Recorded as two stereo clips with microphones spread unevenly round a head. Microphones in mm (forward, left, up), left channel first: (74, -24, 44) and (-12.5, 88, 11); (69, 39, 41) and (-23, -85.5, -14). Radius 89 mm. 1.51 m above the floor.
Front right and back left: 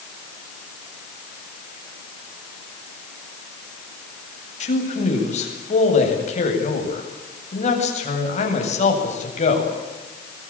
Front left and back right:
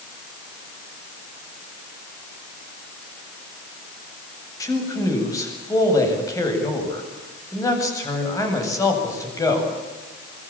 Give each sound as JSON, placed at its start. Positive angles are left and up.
{"t": 4.6, "sound": "a man speaking", "azimuth_deg": -15, "distance_m": 8.5}